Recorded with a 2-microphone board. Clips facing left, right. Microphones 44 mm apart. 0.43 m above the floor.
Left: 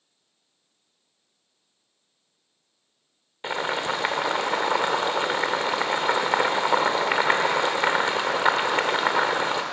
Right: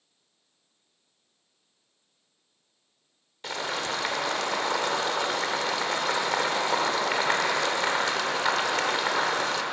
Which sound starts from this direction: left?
Boiling, at 3.4 s.